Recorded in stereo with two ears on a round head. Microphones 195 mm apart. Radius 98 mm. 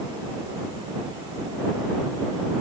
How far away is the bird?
No bird in this recording.